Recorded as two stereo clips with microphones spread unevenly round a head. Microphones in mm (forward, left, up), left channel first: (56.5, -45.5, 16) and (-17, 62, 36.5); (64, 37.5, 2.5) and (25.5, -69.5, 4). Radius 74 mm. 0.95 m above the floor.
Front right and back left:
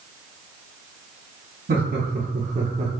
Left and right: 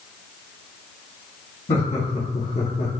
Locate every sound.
1.7 s laughter: 115° left, 1.5 m; by 2.9 s 85° left, 0.7 m